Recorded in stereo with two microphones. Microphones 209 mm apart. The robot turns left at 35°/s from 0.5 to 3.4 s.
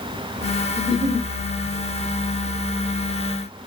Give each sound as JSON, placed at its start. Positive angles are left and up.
{"t": 0.8, "sound": "a giggle", "side_deg": -5, "distance_m": 0.6}